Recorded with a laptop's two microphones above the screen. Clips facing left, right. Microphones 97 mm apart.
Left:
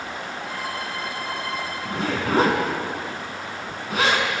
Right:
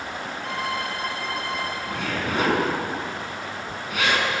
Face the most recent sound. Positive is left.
turn(degrees=35)  # may be behind; listen again after turning